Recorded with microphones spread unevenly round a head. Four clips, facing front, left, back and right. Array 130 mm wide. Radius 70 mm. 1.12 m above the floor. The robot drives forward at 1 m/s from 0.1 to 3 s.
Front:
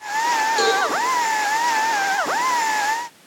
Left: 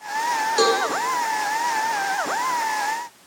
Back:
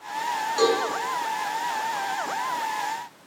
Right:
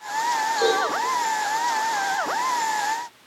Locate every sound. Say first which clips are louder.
0.6 s a cowbell: left 3 dB, back 2 dB; 75° left, 9 m